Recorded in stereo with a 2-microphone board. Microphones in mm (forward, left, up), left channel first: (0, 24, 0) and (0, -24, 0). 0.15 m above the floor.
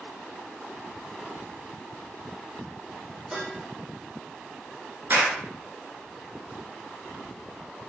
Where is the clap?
50° right (ahead or behind), 1.4 m.